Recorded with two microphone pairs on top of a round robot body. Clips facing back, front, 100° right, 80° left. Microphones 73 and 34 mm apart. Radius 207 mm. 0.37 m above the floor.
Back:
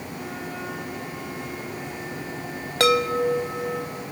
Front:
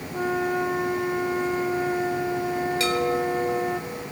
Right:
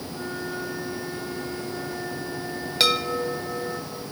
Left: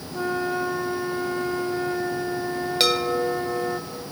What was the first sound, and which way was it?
A flute, 25° left.